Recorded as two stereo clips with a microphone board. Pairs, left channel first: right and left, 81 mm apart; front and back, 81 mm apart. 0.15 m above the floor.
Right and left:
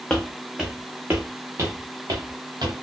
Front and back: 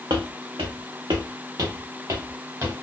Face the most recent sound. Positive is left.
turn(degrees=120)